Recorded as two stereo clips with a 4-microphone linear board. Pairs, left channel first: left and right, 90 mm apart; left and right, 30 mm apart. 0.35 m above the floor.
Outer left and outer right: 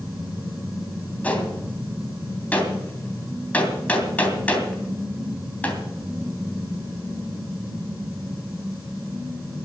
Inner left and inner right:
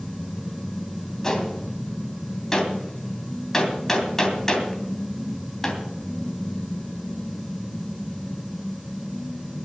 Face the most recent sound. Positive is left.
turn(degrees=15)  # may be behind; listen again after turning